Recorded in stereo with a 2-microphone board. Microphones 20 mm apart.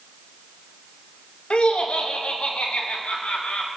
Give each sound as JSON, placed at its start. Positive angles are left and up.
{"t": 1.5, "sound": "laughter", "side_deg": 60, "distance_m": 0.9}